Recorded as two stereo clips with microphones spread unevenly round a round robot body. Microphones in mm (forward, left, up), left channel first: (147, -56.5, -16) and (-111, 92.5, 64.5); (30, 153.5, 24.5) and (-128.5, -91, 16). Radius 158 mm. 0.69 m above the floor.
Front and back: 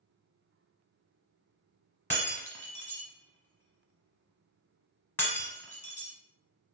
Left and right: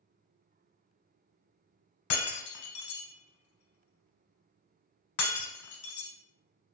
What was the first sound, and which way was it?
Breaking glass, 60° left.